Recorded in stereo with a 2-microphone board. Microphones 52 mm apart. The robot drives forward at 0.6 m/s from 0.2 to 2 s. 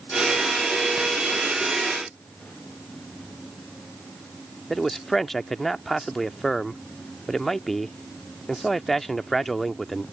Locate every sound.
4.7 s a man speaking: 5° left (ahead or behind)